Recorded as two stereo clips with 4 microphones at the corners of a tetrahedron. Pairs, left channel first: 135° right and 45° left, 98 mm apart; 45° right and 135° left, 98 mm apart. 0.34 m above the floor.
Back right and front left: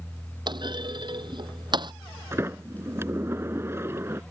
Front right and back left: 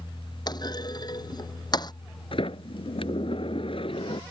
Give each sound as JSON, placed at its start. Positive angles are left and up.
{"t": 0.5, "sound": "a clunk", "azimuth_deg": 0}
{"t": 2.3, "sound": "a sliding door", "azimuth_deg": -20}